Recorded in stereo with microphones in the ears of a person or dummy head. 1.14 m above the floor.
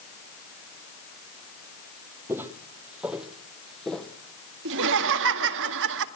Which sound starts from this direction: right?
Laughter, at 4.7 s.